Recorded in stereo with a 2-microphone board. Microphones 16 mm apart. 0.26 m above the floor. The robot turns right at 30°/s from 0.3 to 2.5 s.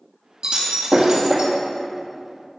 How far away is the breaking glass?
About 2 m.